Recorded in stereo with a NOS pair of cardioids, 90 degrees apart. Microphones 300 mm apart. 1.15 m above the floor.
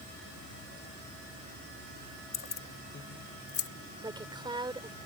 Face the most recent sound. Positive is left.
turn(degrees=-15)